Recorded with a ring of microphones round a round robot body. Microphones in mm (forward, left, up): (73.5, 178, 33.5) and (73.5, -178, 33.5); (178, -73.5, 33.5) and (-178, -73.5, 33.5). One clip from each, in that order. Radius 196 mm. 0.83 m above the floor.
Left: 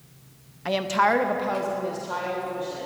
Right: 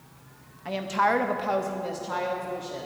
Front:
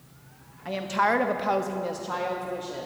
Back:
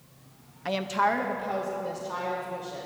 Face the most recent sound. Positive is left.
turn(degrees=-25)